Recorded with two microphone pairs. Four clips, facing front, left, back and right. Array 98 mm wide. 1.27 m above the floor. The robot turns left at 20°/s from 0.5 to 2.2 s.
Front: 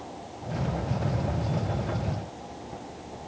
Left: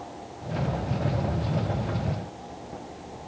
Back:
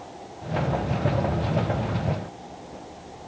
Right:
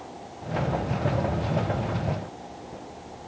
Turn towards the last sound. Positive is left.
No sound to turn to.